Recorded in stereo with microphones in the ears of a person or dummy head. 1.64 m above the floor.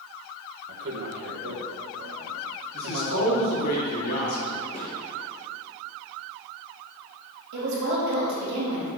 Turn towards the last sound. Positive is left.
turn(degrees=-65)  # may be behind; listen again after turning